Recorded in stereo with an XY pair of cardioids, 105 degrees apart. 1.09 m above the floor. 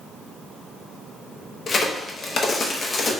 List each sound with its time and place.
1.7 s a crack: 45° left, 0.9 m